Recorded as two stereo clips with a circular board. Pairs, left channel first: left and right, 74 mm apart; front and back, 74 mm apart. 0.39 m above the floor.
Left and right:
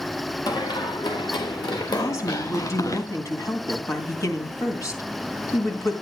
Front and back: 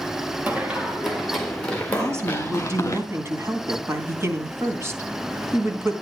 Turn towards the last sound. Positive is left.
turn(degrees=130)